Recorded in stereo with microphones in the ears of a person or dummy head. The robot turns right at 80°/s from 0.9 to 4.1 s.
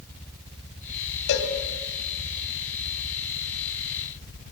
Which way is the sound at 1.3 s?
70° left (ahead or behind).